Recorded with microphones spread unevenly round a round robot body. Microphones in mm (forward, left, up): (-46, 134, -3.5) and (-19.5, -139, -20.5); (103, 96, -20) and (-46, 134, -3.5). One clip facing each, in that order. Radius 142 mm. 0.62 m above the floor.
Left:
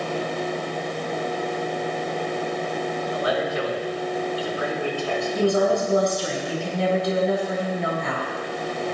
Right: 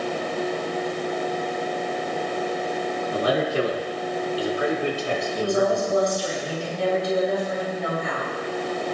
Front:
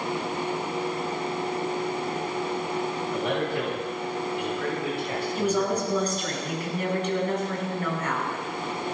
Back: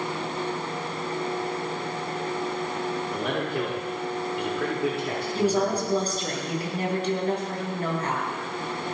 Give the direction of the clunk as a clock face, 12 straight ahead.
I don't hear a clunk.